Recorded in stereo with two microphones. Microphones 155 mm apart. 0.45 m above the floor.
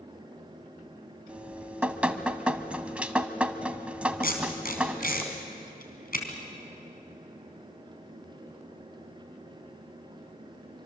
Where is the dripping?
5° right (ahead or behind), 1.1 m.